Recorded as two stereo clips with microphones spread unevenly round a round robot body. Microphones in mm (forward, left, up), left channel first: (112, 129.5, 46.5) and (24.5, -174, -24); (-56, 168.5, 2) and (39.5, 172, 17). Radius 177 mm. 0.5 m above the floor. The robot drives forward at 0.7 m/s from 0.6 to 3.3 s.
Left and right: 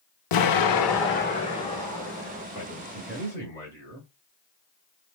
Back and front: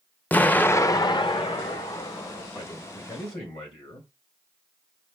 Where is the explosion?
110° left, 0.6 m; by 2.4 s 160° left, 1.6 m.